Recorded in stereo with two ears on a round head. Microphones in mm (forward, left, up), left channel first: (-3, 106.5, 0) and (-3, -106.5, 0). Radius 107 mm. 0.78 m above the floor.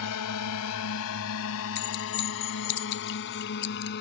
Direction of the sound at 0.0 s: 75° left (ahead or behind).